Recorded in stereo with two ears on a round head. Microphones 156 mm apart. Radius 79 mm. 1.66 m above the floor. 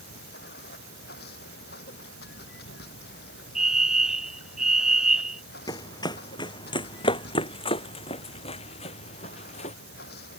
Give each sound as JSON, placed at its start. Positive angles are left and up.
{"t": 0.0, "sound": "running water", "side_deg": 60}
{"t": 3.5, "sound": "a fire alarm", "side_deg": -5}
{"t": 5.7, "sound": "running footsteps", "side_deg": 25}